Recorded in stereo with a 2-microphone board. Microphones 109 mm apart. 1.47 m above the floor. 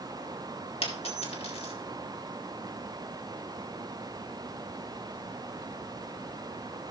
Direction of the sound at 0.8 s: 65° left (ahead or behind).